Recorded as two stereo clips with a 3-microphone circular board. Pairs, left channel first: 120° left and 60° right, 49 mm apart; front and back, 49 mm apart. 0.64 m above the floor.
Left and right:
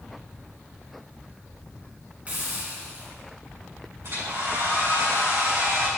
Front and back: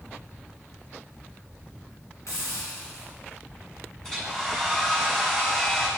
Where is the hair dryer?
80° right, 3 m.